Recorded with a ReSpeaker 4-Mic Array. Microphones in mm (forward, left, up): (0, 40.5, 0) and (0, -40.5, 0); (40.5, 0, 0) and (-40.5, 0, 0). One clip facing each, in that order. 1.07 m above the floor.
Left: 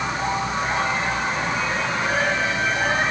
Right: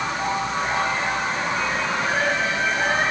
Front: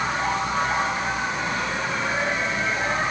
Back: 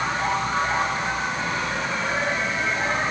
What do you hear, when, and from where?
Only background noise.